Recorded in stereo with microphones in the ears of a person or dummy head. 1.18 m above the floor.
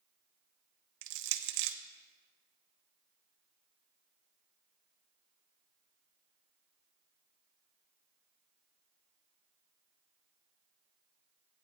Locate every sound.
1.0 s crushing: 65° right (ahead or behind), 0.7 m